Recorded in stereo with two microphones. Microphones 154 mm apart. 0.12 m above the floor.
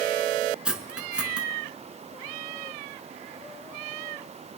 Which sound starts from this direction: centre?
Cutlery clinking, at 0.7 s.